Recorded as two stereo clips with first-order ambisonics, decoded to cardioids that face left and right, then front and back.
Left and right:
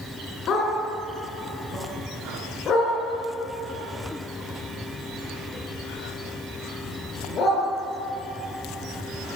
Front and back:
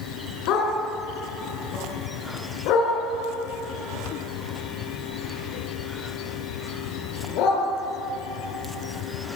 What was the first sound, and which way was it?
A dog barking, 35° left.